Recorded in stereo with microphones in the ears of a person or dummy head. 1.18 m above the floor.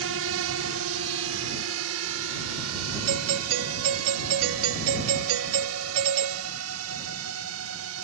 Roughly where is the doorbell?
Right.